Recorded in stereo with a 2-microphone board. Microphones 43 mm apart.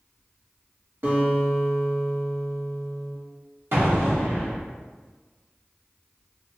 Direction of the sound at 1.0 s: 55° right (ahead or behind).